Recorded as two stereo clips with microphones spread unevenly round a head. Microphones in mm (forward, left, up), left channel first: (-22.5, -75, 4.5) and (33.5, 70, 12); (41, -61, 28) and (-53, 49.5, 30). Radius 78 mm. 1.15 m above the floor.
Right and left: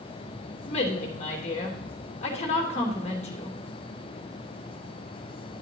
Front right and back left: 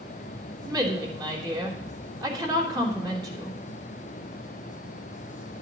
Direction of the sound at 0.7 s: 165° right.